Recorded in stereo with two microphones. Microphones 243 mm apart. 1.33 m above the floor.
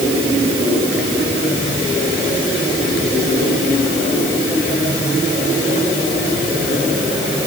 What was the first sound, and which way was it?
Only background noise.